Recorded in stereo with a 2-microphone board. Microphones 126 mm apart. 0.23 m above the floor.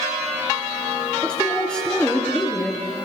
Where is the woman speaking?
5° left (ahead or behind), 4.5 m.